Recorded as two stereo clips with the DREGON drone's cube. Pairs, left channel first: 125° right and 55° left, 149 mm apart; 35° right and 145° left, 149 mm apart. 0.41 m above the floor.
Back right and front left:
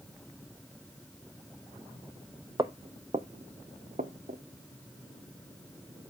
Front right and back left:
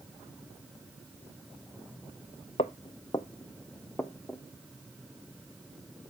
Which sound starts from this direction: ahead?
Footsteps, at 2.6 s.